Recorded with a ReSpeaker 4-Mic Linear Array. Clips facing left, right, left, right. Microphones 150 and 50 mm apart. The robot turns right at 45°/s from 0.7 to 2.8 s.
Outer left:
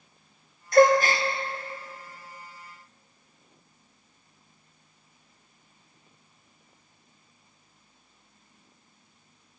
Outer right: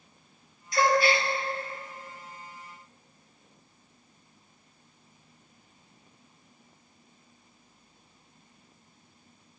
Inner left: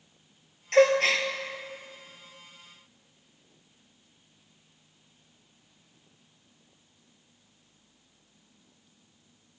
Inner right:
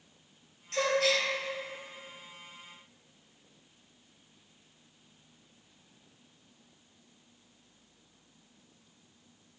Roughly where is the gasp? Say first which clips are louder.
Outer left 6 dB, inner left 7 dB; left.